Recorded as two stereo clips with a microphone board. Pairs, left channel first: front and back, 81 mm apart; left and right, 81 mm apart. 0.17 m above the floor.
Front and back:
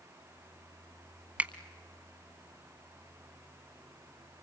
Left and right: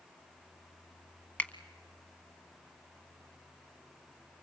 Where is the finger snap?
135° left, 0.9 m.